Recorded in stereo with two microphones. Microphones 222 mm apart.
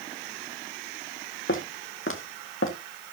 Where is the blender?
No blender in this recording.